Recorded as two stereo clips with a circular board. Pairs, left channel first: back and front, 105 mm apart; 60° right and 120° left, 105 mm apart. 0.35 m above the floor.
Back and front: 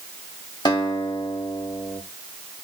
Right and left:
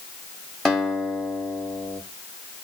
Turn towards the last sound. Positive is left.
turn(degrees=-145)